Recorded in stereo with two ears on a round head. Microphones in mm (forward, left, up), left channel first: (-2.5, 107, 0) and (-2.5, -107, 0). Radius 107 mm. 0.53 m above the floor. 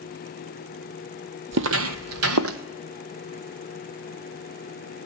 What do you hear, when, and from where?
1.5 s footsteps: 50° right (ahead or behind), 1.1 m; by 2.6 s 60° right (ahead or behind), 1.5 m